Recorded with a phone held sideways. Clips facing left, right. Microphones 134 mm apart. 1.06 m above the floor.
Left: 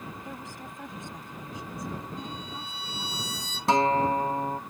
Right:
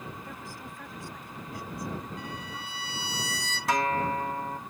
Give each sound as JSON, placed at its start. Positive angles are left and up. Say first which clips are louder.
{"t": 0.2, "sound": "a woman speaking", "louder": "left 2 dB", "side_deg": 20}
{"t": 2.2, "sound": "a violin", "louder": "left 1 dB", "side_deg": -85}
{"t": 3.7, "sound": "a guitar", "louder": "left 5 dB", "side_deg": 25}